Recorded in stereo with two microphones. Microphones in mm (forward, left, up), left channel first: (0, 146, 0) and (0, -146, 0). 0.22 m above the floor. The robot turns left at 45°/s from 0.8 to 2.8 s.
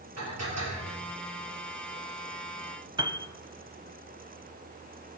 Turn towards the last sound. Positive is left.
turn(degrees=-15)  # may be behind; listen again after turning